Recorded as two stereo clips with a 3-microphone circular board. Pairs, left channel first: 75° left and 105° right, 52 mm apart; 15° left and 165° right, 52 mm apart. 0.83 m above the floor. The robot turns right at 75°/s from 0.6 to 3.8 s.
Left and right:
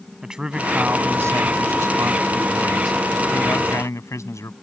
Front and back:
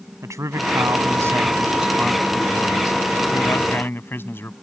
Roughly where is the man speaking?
Behind.